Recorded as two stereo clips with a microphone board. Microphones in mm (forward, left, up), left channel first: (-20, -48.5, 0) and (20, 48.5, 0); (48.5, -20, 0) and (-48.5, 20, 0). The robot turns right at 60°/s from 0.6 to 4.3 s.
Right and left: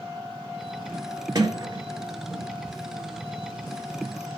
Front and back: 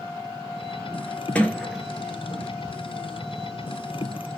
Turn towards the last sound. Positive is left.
turn(degrees=-135)